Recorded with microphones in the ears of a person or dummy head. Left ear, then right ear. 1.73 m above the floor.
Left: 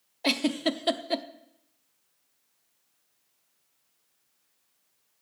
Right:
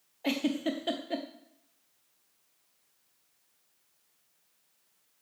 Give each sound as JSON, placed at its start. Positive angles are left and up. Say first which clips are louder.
{"t": 0.2, "sound": "a giggle", "louder": "left 5 dB", "side_deg": 35, "distance_m": 0.7}